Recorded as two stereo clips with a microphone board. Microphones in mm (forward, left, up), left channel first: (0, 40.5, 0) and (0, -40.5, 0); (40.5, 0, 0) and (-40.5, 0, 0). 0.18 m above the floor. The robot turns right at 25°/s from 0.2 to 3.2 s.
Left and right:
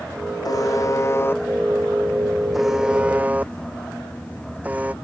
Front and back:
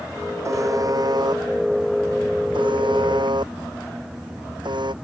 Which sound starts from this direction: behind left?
A buzzer, at 0.5 s.